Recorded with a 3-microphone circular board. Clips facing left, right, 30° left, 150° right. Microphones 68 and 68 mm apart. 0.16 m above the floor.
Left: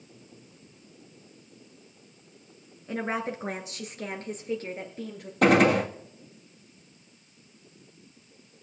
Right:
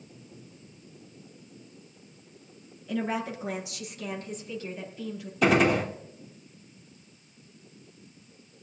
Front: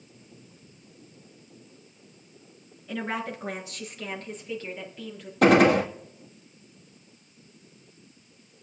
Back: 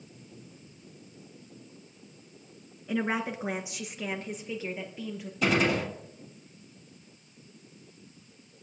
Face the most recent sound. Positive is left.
turn(degrees=55)